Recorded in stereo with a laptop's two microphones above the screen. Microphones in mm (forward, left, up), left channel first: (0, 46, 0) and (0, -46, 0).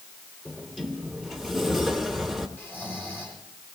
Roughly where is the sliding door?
Centre.